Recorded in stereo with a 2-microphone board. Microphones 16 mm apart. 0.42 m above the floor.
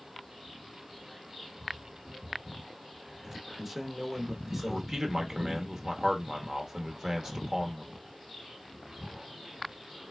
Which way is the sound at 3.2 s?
15° right (ahead or behind).